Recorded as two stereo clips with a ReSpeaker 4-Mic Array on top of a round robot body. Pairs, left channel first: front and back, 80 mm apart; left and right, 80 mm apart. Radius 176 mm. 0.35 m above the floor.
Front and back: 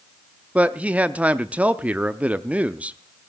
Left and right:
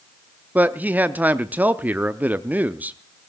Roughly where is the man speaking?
Behind right.